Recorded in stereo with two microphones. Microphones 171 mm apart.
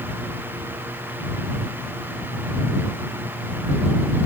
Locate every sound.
Only background noise.